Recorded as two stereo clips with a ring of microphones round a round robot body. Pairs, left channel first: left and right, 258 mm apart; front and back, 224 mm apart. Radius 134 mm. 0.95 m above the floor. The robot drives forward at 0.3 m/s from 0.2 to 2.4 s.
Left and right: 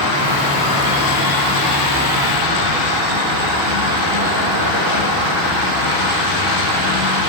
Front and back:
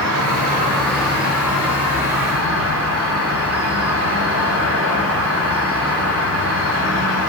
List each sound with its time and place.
0.0 s an insect: 155° right, 1.2 m; by 7.3 s 165° right, 1.8 m